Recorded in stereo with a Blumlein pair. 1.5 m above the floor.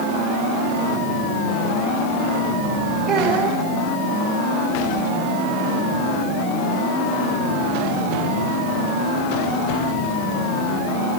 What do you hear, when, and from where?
3.1 s a child speaking: 20° right, 2 m